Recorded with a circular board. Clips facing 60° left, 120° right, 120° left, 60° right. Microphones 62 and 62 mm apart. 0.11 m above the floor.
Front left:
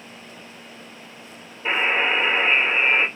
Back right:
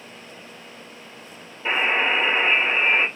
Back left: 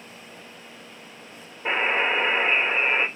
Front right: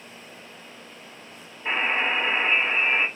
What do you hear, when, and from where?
1.6 s a buzzer: 140° left, 1.6 m